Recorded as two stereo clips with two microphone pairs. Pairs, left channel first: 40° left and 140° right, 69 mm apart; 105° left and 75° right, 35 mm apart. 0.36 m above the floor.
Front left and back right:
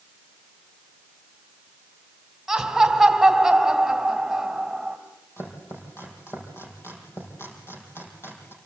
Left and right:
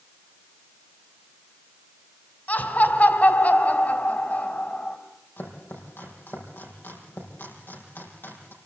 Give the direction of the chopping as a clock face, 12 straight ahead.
9 o'clock.